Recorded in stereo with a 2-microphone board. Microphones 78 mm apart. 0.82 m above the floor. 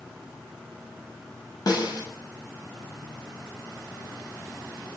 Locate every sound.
1.7 s a snare drum: 55° left (ahead or behind), 5.5 m